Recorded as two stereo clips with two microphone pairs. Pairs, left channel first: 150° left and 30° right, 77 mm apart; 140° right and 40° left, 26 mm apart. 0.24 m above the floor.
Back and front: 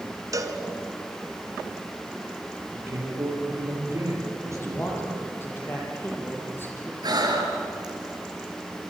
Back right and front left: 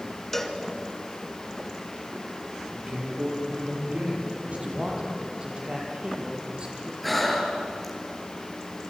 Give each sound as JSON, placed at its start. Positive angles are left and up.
{"t": 0.3, "sound": "a cowbell", "azimuth_deg": -70, "distance_m": 1.7}
{"t": 2.7, "sound": "a man speaking", "azimuth_deg": 15, "distance_m": 7.5}
{"t": 4.5, "sound": "a man speaking", "azimuth_deg": 90, "distance_m": 6.0}
{"t": 7.0, "sound": "breathing", "azimuth_deg": -55, "distance_m": 3.5}